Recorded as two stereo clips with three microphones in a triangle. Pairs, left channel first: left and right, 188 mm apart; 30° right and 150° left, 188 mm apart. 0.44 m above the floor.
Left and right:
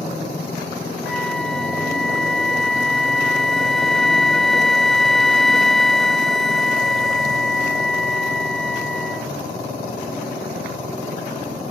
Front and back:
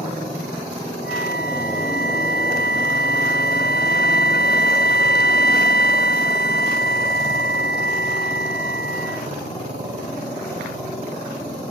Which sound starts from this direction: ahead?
A flute, at 1.0 s.